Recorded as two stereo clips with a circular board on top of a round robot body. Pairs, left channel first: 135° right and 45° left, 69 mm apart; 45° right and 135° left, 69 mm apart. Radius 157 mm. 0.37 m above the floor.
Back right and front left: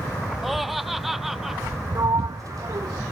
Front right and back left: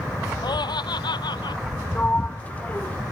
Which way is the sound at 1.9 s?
20° left.